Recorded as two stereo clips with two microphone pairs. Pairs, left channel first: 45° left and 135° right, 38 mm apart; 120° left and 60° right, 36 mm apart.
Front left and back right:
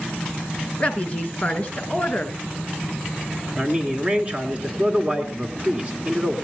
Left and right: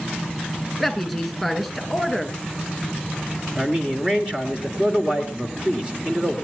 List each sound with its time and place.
0.8 s a woman speaking: 25° left, 1.9 m
3.6 s a man speaking: 105° right, 1.9 m